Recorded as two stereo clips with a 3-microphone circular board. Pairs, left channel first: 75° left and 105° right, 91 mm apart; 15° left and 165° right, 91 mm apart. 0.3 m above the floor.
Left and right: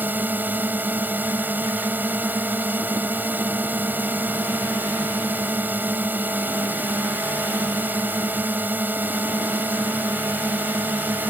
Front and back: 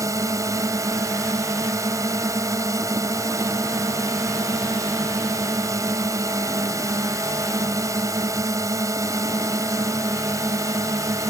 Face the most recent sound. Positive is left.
turn(degrees=-160)